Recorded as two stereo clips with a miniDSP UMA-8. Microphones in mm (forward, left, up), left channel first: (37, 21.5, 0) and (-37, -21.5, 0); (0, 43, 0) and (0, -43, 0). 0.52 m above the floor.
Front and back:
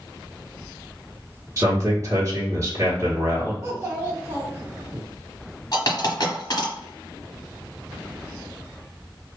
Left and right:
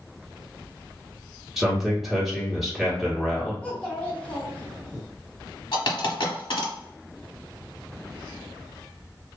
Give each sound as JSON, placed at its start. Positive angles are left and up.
{"t": 1.6, "sound": "a man speaking", "azimuth_deg": 180, "distance_m": 1.3}
{"t": 3.6, "sound": "a child speaking", "azimuth_deg": 160, "distance_m": 1.1}
{"t": 5.7, "sound": "a dropped coin", "azimuth_deg": 70, "distance_m": 1.1}